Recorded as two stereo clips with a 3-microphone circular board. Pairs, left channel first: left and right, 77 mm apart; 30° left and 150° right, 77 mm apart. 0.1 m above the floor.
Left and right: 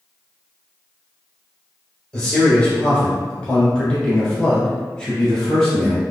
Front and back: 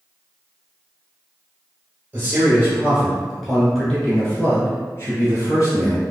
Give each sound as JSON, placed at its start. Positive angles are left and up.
{"t": 2.1, "sound": "a man speaking", "azimuth_deg": 165, "distance_m": 1.9}